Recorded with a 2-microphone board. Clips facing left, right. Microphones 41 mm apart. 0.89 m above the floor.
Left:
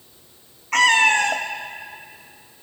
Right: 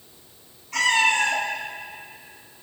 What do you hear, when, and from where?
0.7 s a cat meowing: 65° left (ahead or behind), 0.7 m